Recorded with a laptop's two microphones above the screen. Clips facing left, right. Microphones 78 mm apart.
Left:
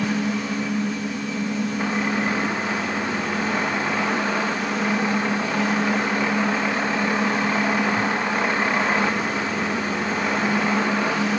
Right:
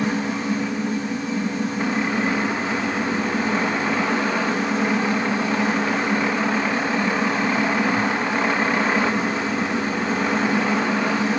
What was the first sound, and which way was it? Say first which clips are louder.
A fan: right 1 dB; 35° right (ahead or behind).